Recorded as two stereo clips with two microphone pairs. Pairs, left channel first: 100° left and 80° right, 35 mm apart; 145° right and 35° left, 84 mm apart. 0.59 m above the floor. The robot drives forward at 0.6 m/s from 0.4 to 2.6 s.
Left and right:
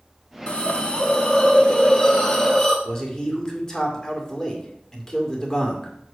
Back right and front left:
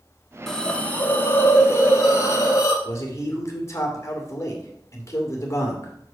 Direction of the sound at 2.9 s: 170° left.